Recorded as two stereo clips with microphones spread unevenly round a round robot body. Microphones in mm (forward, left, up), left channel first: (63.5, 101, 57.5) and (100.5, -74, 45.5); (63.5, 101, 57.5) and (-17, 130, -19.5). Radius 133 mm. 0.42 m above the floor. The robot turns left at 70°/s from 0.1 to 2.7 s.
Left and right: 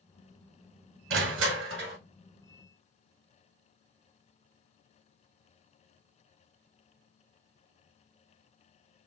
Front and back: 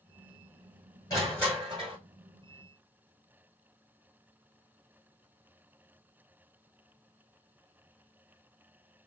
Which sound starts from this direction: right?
Crushing, at 1.1 s.